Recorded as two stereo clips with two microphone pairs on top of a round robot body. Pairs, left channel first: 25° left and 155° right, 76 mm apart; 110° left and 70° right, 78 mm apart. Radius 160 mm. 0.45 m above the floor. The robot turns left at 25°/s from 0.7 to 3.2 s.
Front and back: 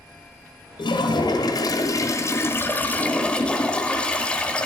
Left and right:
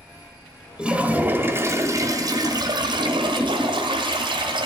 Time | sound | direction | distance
0.8 | a toilet flushing | 10° left | 1.3 m